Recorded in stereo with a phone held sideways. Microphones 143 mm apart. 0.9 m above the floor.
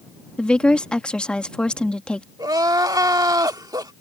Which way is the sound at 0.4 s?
5° left (ahead or behind).